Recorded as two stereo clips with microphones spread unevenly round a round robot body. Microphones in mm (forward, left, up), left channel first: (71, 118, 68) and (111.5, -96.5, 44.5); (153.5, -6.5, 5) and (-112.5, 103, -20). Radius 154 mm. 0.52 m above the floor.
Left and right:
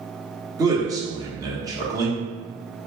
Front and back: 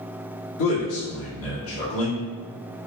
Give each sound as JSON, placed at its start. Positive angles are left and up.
{"t": 0.6, "sound": "a man speaking", "azimuth_deg": -25, "distance_m": 1.3}